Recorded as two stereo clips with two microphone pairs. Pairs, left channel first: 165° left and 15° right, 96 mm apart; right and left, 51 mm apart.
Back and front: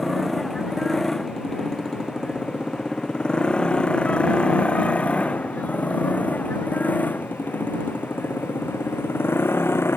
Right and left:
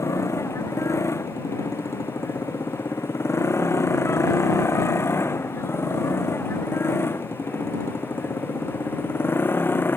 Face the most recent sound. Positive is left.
turn(degrees=-135)